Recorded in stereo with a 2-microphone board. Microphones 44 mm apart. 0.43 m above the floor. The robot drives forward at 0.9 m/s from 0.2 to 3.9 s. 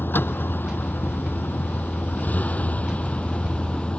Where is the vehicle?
50° left (ahead or behind); by 4.0 s 25° left (ahead or behind).